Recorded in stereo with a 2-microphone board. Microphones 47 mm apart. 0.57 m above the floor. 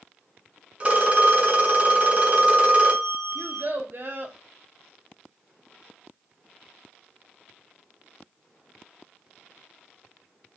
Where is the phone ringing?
30° right (ahead or behind), 1.7 m.